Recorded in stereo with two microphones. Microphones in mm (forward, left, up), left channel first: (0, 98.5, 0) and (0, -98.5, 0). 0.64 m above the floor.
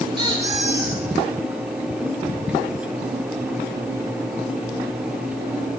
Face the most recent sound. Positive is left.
turn(degrees=-25)  # may be behind; listen again after turning